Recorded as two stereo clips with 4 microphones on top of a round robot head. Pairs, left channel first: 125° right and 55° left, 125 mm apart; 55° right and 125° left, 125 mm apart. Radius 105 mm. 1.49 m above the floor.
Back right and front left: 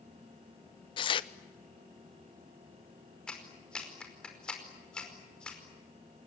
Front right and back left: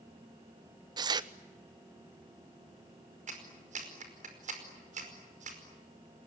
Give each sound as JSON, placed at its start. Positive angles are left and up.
{"t": 1.0, "sound": "tearing paper", "azimuth_deg": -175, "distance_m": 1.0}
{"t": 3.3, "sound": "a clap", "azimuth_deg": 150, "distance_m": 5.0}